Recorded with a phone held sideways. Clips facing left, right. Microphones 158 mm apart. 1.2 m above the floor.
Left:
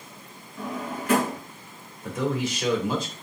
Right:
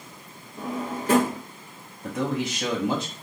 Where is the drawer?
45° right (ahead or behind), 1.5 m.